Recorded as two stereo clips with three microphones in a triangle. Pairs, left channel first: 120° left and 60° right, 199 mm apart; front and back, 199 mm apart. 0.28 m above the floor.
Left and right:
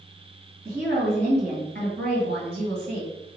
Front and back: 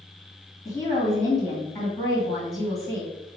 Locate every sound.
0.7 s a woman speaking: 85° right, 1.8 m